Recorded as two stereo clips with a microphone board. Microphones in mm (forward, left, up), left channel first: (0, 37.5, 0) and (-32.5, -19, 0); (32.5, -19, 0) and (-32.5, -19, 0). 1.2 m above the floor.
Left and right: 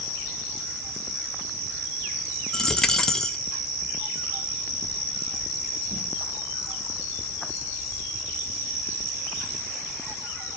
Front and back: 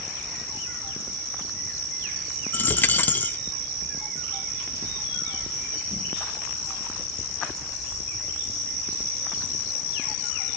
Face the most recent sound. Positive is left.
turn(degrees=-10)